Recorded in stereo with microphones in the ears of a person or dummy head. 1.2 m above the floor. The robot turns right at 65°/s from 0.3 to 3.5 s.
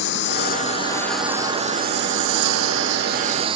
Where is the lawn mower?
125° left; by 3.6 s 30° right.